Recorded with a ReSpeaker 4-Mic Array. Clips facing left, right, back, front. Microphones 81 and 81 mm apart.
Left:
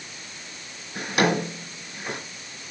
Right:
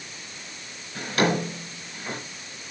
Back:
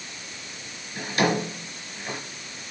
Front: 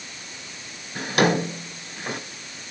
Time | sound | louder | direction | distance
0.9 | a drawer | left 1 dB, front 3 dB | 15° left | 3.5 m